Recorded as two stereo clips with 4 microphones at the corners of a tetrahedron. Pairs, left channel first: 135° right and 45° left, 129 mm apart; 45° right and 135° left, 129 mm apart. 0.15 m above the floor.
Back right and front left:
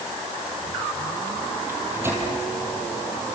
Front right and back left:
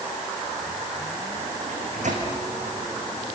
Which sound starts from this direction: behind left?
A microwave, at 1.7 s.